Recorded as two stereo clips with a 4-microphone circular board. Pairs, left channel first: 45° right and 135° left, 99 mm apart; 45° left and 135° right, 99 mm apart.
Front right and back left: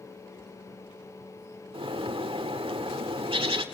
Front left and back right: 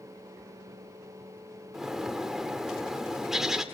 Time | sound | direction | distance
1.7 | a bird | 140° left | 1.5 m